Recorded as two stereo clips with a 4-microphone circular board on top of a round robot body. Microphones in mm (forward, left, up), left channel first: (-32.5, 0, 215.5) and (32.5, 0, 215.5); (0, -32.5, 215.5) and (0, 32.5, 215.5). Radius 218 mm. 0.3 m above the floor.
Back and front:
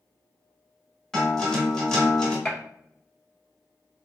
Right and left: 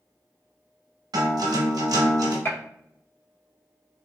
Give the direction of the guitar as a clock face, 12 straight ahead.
9 o'clock.